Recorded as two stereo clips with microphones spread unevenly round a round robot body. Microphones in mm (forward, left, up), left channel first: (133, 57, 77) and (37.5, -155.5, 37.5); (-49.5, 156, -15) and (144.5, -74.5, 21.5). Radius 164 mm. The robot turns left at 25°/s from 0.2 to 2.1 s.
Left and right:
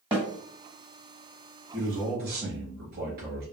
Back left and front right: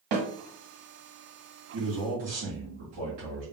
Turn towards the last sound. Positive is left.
turn(degrees=-90)